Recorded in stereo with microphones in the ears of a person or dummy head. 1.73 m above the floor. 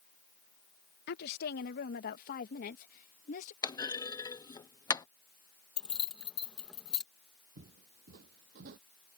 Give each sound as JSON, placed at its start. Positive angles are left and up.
{"t": 1.1, "sound": "a woman speaking", "side_deg": 65}
{"t": 3.6, "sound": "a clunk", "side_deg": 15}
{"t": 5.8, "sound": "keys jangling", "side_deg": 5}
{"t": 7.6, "sound": "footsteps", "side_deg": -45}